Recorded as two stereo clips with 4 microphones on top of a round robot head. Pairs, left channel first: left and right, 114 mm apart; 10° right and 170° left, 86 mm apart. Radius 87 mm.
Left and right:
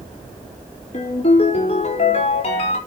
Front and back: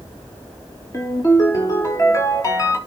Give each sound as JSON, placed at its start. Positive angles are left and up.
{"t": 0.9, "sound": "a ringtone", "azimuth_deg": 45, "distance_m": 5.5}